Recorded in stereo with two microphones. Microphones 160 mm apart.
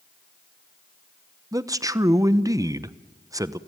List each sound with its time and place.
1.5 s a man speaking: 20° right (ahead or behind), 0.7 m